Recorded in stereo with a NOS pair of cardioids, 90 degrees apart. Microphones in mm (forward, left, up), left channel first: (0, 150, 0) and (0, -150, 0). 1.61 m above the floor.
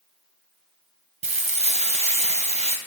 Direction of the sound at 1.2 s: 20° right.